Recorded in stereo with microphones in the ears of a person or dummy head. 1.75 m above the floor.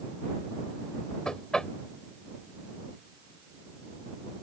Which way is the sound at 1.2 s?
5° left (ahead or behind).